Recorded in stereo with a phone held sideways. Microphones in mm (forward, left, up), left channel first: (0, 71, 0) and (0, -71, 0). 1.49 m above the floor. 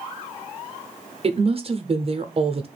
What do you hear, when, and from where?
1.2 s a woman speaking: 45° right (ahead or behind), 0.6 m